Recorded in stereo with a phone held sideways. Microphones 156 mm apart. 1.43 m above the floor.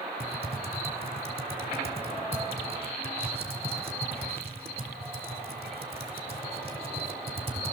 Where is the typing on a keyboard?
40° right (ahead or behind), 1.9 m.